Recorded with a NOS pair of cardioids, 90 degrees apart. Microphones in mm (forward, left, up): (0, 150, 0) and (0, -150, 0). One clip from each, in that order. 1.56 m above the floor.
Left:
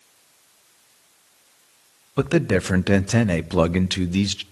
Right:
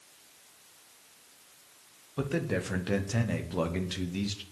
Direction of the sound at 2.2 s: 60° left.